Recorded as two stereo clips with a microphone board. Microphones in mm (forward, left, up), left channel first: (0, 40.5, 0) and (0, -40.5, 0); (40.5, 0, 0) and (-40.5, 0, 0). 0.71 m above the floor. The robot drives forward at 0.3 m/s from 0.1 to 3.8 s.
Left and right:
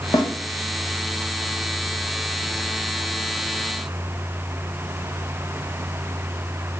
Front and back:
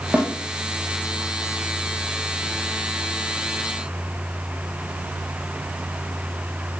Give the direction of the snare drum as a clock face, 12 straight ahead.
8 o'clock.